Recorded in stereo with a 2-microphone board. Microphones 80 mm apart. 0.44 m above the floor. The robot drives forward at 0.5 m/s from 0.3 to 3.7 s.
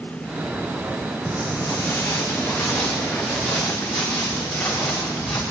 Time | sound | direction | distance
1.3 | footsteps | 35° left (ahead or behind) | 1.3 m